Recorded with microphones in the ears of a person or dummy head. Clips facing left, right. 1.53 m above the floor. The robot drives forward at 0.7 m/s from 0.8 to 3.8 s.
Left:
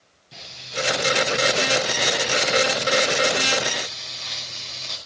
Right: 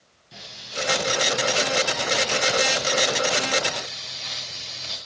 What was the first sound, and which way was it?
Frying, 5° right (ahead or behind).